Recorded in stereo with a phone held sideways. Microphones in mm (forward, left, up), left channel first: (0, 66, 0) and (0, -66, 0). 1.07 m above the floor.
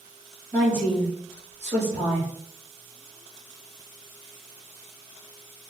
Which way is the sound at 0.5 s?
70° right (ahead or behind).